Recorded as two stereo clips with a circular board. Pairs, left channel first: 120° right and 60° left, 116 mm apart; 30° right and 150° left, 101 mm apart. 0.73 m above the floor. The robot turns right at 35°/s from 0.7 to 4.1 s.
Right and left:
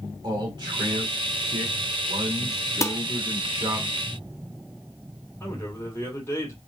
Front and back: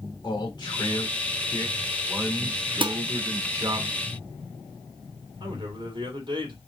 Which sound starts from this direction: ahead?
A man speaking, at 0.2 s.